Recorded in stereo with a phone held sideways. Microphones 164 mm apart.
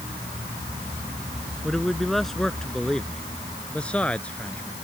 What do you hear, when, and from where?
1.6 s a man speaking: centre (ahead or behind); by 4.7 s 10° left (ahead or behind)